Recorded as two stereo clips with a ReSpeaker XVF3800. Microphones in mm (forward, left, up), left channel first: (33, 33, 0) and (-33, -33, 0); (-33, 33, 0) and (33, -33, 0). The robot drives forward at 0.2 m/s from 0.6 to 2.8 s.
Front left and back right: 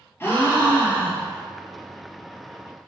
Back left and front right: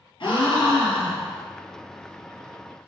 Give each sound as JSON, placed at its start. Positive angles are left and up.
{"t": 0.2, "sound": "a gasp", "azimuth_deg": 110, "distance_m": 1.0}